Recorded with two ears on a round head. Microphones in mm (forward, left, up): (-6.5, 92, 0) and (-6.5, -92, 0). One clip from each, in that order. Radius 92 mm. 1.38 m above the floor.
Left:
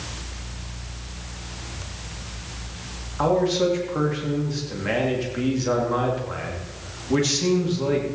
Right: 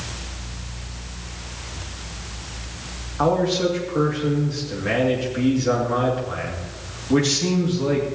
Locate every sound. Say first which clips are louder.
3.2 s a man speaking: right 1 dB; 15° left (ahead or behind), 2.5 m